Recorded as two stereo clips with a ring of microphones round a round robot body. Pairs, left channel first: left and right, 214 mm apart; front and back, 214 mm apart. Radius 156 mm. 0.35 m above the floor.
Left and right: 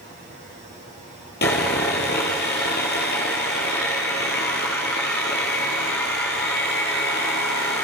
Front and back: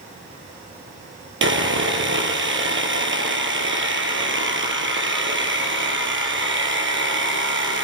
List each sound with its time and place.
1.4 s sawing: 150° left, 3 m